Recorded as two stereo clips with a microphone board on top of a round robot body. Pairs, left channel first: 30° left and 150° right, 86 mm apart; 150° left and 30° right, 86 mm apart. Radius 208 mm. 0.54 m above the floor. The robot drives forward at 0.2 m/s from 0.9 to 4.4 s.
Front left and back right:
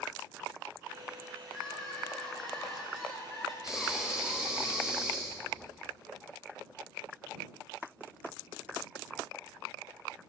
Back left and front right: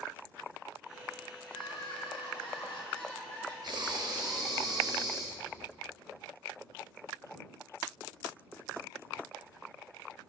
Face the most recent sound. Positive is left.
turn(degrees=-75)